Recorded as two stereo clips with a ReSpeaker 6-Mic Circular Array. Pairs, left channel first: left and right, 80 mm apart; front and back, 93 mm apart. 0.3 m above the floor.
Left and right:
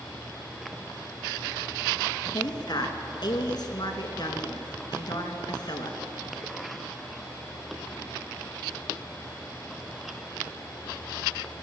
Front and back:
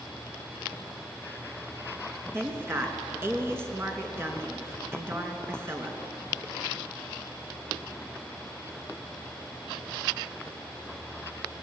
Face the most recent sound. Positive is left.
turn(degrees=120)